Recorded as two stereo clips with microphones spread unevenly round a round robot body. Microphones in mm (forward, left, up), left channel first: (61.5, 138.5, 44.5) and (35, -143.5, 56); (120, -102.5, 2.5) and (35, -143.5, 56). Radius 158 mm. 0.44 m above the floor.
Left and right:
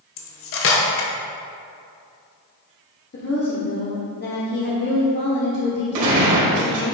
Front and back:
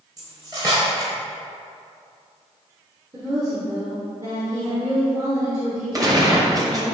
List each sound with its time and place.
0.2 s cutlery clinking: 125° left, 1.0 m
3.1 s a woman speaking: 110° left, 1.2 m
5.9 s a gunshot: 90° right, 2 m